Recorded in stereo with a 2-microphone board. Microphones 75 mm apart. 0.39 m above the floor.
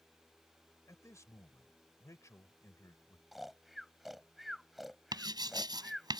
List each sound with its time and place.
0.9 s a man speaking: 45° left (ahead or behind)
3.3 s snoring: centre (ahead or behind)
5.1 s writing: 70° right (ahead or behind)